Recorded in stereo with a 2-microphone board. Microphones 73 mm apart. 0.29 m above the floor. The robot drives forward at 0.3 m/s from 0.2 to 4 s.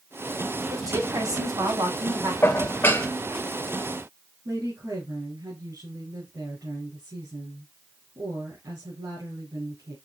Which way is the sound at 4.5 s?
60° right (ahead or behind).